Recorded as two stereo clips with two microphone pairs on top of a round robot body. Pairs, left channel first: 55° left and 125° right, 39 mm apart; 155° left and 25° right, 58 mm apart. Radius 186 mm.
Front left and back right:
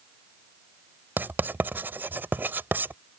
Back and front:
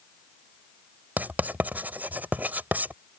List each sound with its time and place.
1.2 s writing: 85° right